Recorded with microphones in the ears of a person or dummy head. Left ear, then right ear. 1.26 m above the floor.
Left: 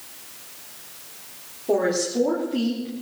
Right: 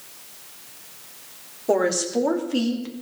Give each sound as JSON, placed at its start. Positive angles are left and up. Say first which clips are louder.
{"t": 1.7, "sound": "a woman speaking", "louder": "right 1 dB", "side_deg": -60, "distance_m": 3.5}